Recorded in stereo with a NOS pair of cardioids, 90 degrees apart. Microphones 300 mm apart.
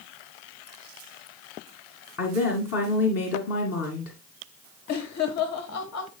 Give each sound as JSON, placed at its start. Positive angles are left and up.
{"t": 2.2, "sound": "a woman speaking", "azimuth_deg": 55, "distance_m": 2.0}
{"t": 4.9, "sound": "laughter", "azimuth_deg": 60, "distance_m": 1.4}